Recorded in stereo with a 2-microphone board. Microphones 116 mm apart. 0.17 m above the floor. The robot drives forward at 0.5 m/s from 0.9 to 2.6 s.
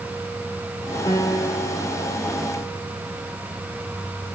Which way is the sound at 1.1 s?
35° left (ahead or behind).